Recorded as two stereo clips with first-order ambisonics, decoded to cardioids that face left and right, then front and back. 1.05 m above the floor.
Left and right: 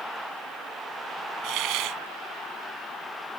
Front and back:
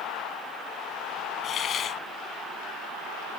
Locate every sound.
1.4 s a hiss: 60° right